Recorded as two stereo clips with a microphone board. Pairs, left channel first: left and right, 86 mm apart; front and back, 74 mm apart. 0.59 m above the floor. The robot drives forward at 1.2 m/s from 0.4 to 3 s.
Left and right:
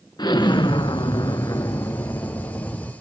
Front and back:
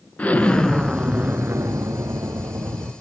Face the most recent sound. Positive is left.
turn(degrees=160)